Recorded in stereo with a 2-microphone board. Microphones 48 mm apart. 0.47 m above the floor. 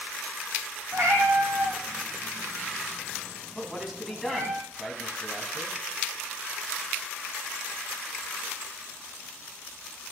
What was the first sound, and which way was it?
A cat meowing, 65° right (ahead or behind).